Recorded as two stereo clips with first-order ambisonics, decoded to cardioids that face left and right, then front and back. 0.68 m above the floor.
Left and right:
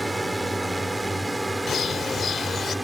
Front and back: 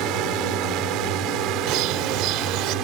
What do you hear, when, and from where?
0.0 s a drone: 175° right
1.7 s a bird: 155° left